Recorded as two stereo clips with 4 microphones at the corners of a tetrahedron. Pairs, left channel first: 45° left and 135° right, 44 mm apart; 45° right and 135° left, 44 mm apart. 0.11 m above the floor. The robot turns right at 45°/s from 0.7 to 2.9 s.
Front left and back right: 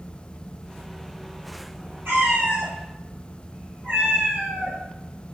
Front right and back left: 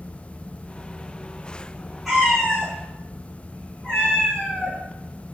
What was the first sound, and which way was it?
A cat meowing, 140° right.